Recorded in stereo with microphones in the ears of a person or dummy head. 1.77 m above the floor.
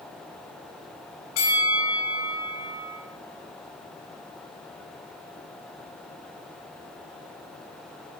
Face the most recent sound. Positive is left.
turn(degrees=80)